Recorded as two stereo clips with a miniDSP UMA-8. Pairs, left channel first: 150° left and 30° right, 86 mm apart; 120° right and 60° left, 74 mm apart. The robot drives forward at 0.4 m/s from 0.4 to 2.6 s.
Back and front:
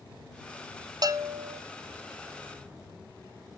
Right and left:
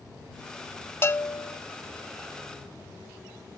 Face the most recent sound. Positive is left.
turn(degrees=-115)